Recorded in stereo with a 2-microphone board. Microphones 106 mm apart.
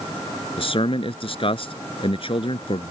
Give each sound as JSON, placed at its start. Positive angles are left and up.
{"t": 0.6, "sound": "a man speaking", "side_deg": 60}